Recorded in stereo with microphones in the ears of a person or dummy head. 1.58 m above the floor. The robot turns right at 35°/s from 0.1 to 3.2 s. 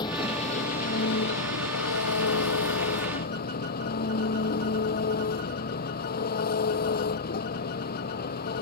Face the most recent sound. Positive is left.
turn(degrees=135)